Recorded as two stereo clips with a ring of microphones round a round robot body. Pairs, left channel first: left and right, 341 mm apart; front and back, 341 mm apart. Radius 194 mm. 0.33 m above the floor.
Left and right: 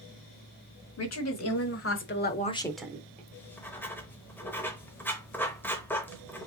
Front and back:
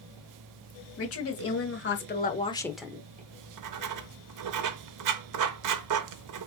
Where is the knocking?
I don't hear knocking.